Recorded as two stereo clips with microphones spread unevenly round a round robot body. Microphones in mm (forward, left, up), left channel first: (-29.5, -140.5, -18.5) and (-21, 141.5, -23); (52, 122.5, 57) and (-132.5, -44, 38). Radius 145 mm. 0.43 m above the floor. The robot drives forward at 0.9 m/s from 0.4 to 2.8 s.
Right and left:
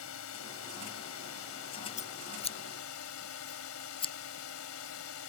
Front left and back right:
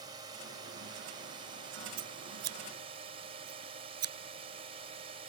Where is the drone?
70° right; by 5.3 s 75° right.